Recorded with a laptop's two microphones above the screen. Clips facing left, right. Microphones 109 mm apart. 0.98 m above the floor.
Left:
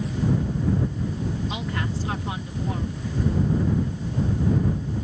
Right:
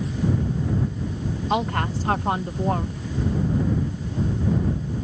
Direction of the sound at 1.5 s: 55° right (ahead or behind).